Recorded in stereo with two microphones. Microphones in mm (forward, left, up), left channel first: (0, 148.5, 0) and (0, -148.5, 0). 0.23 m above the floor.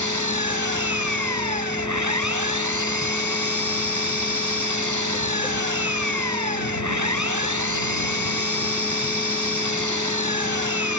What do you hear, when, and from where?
0.0 s an engine running: 75° right (ahead or behind)